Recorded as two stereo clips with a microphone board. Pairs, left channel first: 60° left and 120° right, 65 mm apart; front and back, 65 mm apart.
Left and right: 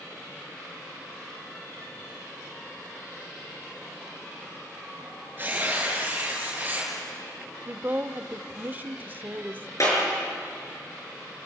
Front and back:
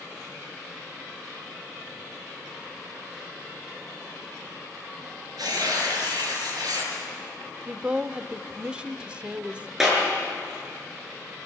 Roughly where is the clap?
Left.